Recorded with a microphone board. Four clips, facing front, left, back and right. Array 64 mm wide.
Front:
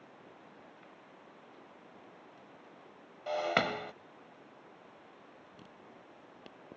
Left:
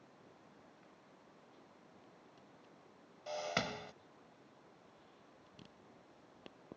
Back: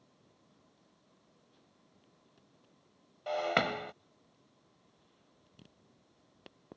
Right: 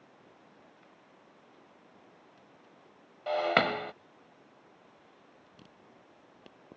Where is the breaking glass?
90° right.